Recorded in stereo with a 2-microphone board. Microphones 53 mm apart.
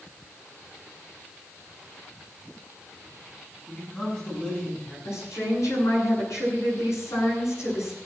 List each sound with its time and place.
3.7 s a man speaking: 25° left (ahead or behind), 6.5 m; by 5.0 s 30° left (ahead or behind), 7.5 m
5.0 s a woman speaking: 65° left (ahead or behind), 10 m